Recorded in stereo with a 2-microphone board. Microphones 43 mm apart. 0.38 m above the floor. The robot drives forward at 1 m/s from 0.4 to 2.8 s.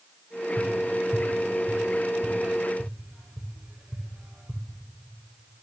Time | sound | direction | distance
0.6 | tapping | 15° right (ahead or behind) | 1.8 m